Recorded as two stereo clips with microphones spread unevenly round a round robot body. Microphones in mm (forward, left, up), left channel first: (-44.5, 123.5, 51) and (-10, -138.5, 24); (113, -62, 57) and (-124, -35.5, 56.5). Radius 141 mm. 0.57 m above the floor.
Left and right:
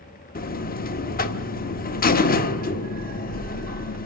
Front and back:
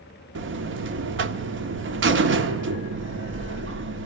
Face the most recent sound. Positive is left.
turn(degrees=150)